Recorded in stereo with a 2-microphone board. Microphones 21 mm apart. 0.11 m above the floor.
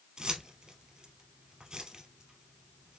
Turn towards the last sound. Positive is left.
turn(degrees=-45)  # may be behind; listen again after turning